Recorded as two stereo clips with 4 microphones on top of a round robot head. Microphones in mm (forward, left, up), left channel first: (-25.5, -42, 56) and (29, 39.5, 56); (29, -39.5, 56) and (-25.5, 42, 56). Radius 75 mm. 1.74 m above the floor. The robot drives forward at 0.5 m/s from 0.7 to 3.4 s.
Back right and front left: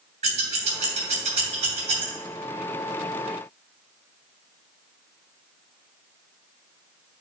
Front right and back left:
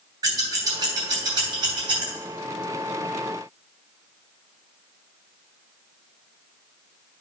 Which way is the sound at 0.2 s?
70° left.